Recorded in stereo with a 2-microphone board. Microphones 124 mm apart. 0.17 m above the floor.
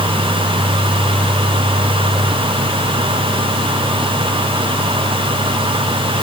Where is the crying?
I don't hear crying.